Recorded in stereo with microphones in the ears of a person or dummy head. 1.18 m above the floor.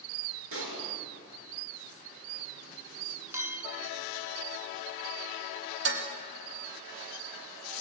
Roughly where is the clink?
Centre.